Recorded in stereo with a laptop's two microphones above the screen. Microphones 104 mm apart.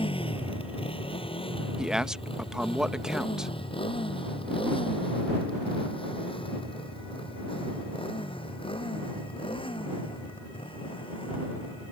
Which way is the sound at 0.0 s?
70° left (ahead or behind).